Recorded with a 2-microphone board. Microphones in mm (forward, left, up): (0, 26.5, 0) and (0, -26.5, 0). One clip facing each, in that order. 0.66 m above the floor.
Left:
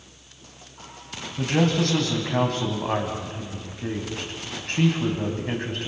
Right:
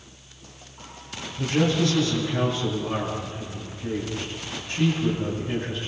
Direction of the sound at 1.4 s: 75° left (ahead or behind).